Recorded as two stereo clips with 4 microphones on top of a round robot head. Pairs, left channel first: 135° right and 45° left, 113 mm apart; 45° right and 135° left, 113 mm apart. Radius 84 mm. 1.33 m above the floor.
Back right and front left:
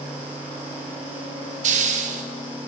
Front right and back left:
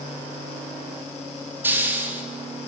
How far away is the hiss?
About 3 m.